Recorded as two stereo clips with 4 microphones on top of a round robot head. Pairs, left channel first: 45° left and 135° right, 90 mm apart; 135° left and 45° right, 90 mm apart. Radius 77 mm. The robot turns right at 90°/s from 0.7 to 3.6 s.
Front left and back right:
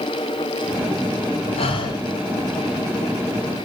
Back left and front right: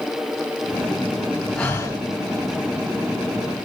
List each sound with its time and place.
1.6 s breathing: 55° left, 6.5 m; by 2.0 s 90° left, 6.5 m